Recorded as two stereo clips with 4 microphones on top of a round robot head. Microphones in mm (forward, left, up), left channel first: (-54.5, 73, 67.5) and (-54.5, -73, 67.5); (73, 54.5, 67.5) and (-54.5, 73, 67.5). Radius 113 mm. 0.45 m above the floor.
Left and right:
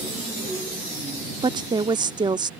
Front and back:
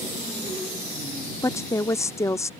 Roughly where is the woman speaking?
Ahead right.